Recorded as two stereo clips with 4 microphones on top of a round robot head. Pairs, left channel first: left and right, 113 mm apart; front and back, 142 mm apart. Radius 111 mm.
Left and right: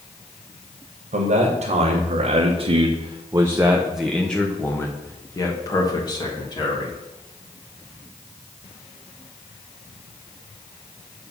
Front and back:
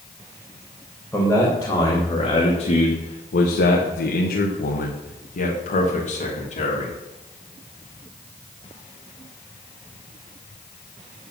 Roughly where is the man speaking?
Right.